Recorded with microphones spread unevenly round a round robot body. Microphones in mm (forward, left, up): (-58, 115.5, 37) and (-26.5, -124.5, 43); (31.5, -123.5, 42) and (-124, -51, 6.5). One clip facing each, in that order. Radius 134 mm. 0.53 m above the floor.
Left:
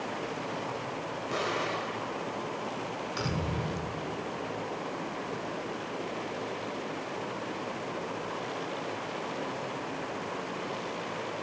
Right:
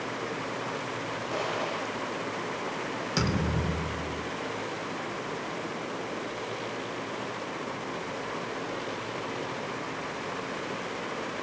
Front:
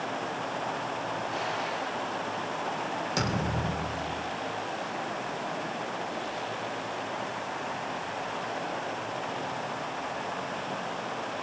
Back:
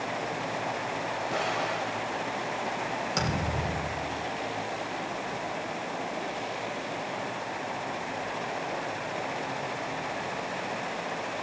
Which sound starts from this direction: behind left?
An explosion, at 1.3 s.